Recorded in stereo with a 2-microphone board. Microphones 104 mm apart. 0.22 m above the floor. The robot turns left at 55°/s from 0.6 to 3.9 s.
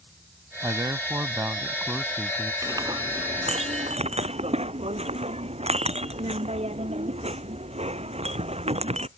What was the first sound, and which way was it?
A man speaking, 30° right (ahead or behind).